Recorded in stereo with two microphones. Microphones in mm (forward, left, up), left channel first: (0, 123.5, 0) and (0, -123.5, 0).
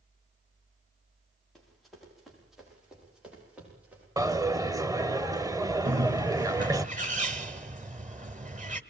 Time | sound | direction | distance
1.6 | running footsteps | centre (ahead or behind) | 8.5 m
4.2 | a dropped coin | 15° right (ahead or behind) | 0.7 m
5.8 | a bird | 35° right (ahead or behind) | 1.2 m